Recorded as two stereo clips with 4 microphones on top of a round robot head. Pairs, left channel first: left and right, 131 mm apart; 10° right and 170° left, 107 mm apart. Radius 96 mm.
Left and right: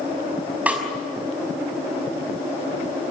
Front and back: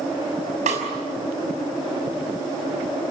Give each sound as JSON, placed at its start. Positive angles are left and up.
{"t": 0.7, "sound": "a snare drum", "azimuth_deg": -170, "distance_m": 5.5}